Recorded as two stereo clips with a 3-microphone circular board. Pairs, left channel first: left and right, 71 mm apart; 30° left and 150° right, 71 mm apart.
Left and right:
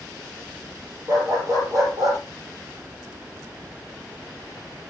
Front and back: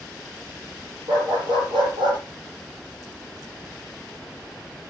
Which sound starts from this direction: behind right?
A dog barking, at 1.1 s.